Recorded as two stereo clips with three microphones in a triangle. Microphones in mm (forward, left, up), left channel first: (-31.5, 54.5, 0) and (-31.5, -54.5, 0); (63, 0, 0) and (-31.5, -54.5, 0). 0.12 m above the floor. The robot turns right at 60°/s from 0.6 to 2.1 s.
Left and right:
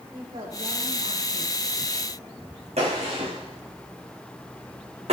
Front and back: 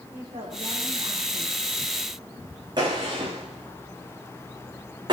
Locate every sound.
0.1 s a woman speaking: 135° right, 7 m; by 1.6 s 75° right, 7 m
2.8 s a gunshot: 100° right, 8 m